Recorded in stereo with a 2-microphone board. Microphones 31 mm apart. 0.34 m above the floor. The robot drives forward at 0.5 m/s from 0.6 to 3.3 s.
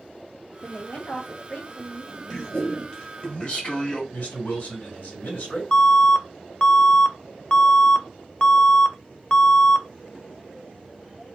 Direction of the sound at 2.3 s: 25° left (ahead or behind).